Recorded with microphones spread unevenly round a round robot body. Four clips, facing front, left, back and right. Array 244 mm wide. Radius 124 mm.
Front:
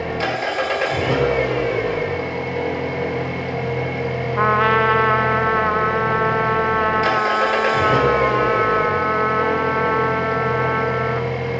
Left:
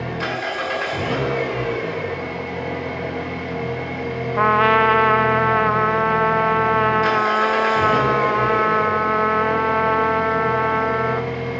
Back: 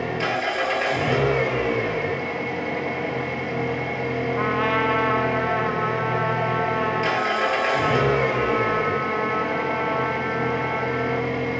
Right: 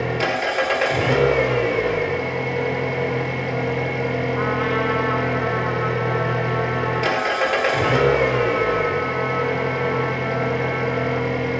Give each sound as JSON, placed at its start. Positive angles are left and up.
{"t": 0.0, "sound": "an engine running", "azimuth_deg": -70, "distance_m": 2.5}
{"t": 4.4, "sound": "a trumpet", "azimuth_deg": 80, "distance_m": 0.6}